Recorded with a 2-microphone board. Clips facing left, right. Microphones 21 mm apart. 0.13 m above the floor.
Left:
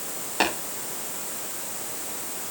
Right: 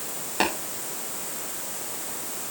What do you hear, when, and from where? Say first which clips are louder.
0.4 s tapping: left 1 dB; 5° left (ahead or behind), 7 m